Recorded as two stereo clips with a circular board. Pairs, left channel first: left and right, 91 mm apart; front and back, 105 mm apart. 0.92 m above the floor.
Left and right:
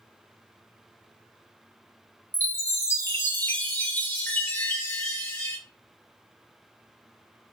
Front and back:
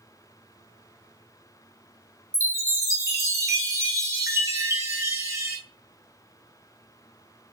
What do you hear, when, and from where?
2.3 s a chime: 135° left, 0.7 m